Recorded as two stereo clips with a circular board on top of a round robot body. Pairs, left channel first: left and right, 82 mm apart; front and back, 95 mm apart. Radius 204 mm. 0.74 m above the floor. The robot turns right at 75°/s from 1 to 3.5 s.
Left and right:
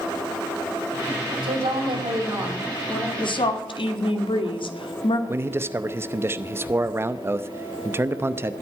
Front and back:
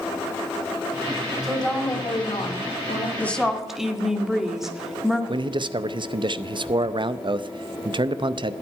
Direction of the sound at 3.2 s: 70° left.